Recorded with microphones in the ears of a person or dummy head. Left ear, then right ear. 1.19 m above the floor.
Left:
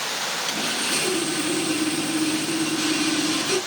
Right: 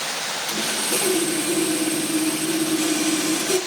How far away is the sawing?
About 5.5 m.